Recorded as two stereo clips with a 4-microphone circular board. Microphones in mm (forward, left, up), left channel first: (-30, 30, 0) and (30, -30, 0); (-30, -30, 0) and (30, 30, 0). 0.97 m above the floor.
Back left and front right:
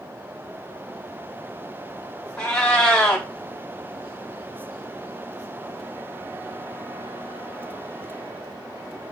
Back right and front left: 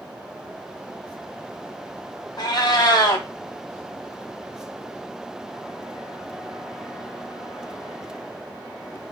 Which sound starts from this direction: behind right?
A cat meowing, at 2.4 s.